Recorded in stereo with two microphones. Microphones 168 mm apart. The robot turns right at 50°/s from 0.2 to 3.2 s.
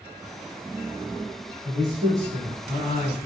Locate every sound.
1.6 s a man speaking: 25° right (ahead or behind), 1.4 m; by 3.2 s 5° right (ahead or behind), 1.4 m